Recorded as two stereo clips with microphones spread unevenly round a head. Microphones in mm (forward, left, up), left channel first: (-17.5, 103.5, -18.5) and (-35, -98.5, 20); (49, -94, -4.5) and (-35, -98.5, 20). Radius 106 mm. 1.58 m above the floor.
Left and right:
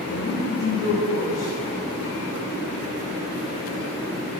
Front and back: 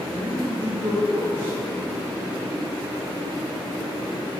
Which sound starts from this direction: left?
A woman speaking, at 0.1 s.